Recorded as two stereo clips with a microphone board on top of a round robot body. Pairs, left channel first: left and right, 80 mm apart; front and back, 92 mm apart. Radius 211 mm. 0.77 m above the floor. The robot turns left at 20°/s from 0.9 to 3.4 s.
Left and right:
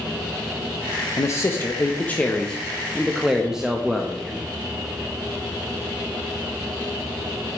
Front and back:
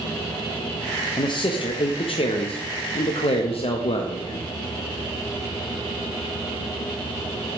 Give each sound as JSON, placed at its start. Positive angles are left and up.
{"t": 1.2, "sound": "a man speaking", "azimuth_deg": 40, "distance_m": 0.9}